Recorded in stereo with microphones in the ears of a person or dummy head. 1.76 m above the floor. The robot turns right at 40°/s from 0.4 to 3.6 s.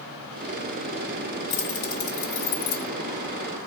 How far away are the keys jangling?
About 1.7 m.